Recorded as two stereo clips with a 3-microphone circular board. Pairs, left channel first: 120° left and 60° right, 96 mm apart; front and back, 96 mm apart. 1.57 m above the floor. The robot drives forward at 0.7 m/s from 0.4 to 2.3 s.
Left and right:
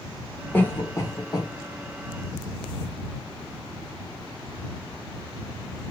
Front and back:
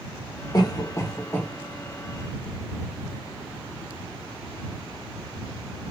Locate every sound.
0.5 s a cough: 50° left, 1.3 m; by 1.5 s 80° left, 1.0 m